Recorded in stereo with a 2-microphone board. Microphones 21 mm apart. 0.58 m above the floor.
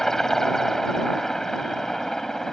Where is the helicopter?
15° left (ahead or behind); by 2.5 s 20° left (ahead or behind).